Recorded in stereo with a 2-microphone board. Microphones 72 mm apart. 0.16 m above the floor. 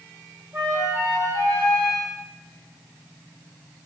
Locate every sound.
0.5 s a flute: 40° right (ahead or behind), 5 m